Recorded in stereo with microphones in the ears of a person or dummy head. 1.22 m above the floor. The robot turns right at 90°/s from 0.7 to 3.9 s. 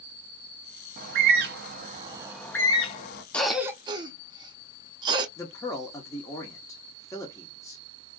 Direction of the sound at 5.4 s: 15° left (ahead or behind).